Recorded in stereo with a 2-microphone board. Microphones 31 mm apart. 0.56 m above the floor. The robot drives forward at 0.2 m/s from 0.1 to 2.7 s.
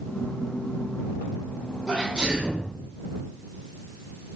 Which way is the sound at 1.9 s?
30° right (ahead or behind).